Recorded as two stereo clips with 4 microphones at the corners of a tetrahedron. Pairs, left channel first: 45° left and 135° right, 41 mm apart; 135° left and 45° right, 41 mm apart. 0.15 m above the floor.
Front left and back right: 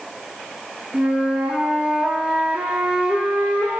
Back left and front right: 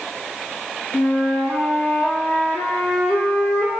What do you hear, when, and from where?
0.9 s a flute: 165° left, 0.8 m